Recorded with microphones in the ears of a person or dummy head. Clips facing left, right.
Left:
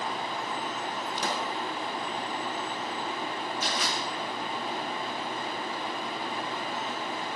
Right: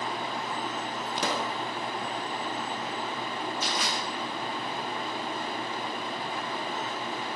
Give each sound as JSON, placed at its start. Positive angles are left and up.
{"t": 1.2, "sound": "a pop", "side_deg": -60, "distance_m": 0.6}
{"t": 3.6, "sound": "crushing", "side_deg": -65, "distance_m": 2.5}